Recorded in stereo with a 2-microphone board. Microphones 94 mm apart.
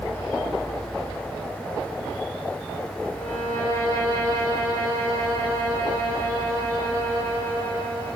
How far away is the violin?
About 3.5 m.